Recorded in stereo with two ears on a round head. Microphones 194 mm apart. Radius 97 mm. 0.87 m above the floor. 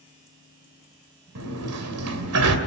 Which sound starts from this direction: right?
A sliding door, at 1.4 s.